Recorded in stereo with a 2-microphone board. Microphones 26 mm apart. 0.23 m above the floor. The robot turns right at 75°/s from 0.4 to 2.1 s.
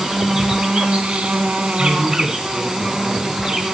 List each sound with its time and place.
0.0 s an insect: 155° right, 1.0 m; by 3.7 s 25° right, 1.0 m
1.8 s a man speaking: 35° left (ahead or behind), 2.5 m; by 3.6 s 15° left (ahead or behind), 2.5 m